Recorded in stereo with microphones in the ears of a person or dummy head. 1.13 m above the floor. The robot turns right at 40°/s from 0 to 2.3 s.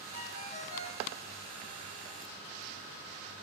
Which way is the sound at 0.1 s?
115° left.